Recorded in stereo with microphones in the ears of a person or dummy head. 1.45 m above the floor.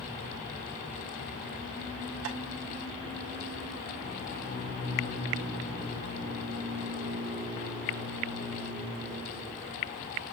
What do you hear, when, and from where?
2.2 s tapping: 65° right (ahead or behind), 0.7 m